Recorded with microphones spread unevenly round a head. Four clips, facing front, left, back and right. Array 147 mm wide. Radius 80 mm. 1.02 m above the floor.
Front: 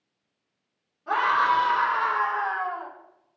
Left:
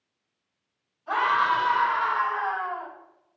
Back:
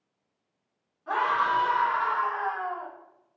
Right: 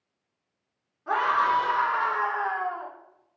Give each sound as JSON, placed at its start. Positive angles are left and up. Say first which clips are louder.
{"t": 1.1, "sound": "a scream", "louder": "even, front 3 dB", "azimuth_deg": -70, "distance_m": 2.0}